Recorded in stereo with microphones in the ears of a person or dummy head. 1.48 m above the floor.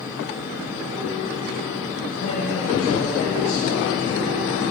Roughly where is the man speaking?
Left.